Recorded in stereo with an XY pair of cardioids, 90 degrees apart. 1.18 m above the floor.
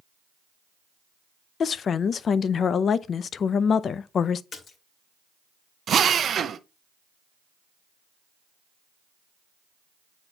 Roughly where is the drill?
Ahead right.